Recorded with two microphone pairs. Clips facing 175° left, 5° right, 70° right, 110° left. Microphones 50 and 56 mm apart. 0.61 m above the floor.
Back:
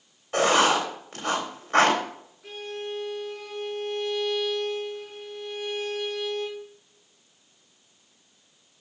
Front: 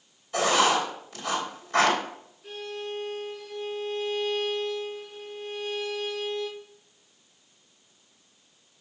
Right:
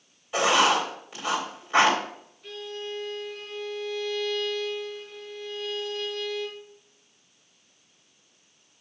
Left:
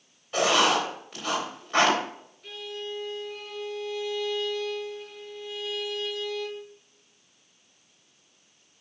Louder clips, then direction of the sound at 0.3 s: Back 2 dB, right 1 dB; 150° right.